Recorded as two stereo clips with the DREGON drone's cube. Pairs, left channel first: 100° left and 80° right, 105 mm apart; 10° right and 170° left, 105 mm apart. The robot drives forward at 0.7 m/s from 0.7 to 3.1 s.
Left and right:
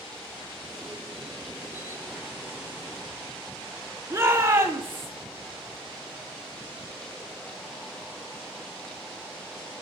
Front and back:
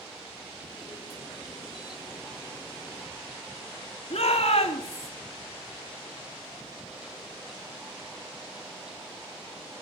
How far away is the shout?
About 5 m.